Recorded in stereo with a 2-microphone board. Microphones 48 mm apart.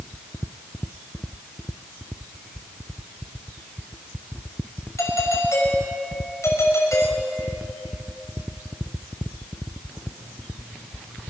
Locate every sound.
5.0 s a doorbell: 80° left, 5.5 m